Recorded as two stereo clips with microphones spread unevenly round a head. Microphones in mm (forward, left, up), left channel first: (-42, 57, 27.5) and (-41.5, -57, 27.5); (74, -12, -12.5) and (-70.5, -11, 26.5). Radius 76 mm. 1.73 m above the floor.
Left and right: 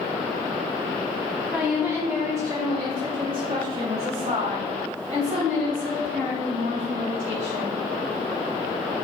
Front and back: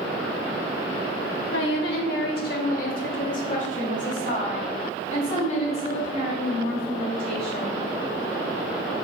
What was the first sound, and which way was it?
A woman speaking, 5° right.